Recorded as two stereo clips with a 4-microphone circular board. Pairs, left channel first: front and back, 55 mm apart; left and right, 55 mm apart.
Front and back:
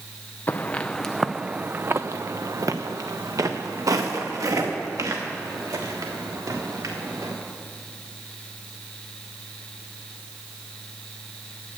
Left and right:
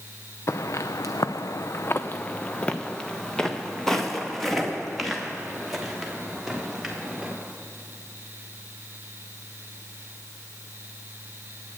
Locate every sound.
0.5 s footsteps: 55° left, 0.6 m; by 7.3 s 175° right, 3 m